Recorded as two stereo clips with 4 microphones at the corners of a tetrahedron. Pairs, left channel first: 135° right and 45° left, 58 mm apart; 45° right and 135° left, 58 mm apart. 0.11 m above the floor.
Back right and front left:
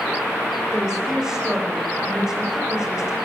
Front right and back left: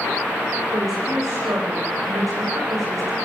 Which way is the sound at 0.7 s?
125° left.